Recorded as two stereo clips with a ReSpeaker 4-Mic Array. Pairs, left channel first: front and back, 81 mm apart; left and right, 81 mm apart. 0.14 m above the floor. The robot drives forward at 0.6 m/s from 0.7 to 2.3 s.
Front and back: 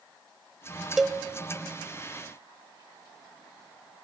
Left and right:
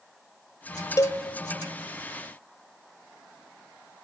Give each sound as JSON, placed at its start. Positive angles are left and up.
{"t": 1.0, "sound": "a cowbell", "azimuth_deg": 95, "distance_m": 0.5}